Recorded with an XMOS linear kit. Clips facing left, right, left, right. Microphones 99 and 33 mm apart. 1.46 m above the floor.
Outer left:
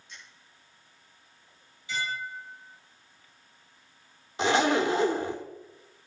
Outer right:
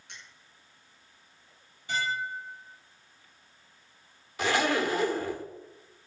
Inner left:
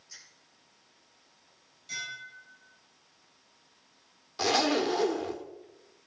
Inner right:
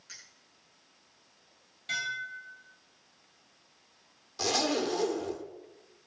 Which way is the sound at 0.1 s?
70° right (ahead or behind).